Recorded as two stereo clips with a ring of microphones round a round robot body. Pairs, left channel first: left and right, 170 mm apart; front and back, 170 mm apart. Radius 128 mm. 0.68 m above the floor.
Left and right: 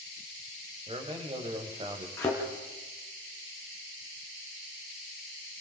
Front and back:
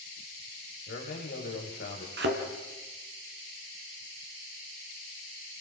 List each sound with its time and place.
0.9 s a man speaking: 35° right, 4 m
2.2 s a thud: 170° left, 3.5 m